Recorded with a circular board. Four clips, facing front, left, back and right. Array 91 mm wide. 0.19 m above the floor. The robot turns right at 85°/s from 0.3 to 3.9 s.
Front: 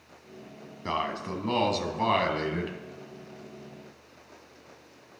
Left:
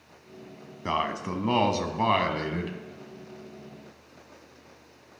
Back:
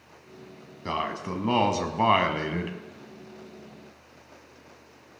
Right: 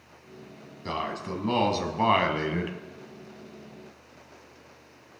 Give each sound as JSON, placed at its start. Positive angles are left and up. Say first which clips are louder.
{"t": 0.8, "sound": "a man speaking", "louder": "left 3 dB, back 1 dB", "azimuth_deg": 85, "distance_m": 1.0}